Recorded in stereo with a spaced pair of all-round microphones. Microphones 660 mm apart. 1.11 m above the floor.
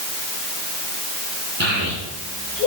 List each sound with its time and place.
1.6 s a child speaking: 15° right (ahead or behind), 7 m; by 2.7 s 20° right (ahead or behind), 7.5 m